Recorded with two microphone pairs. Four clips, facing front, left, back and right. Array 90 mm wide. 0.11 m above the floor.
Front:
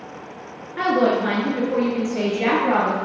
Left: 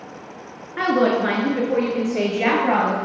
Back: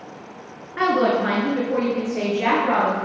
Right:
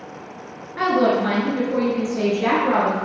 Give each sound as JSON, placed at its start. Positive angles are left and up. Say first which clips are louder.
{"t": 0.8, "sound": "a woman speaking", "louder": "even, even", "azimuth_deg": 120, "distance_m": 1.7}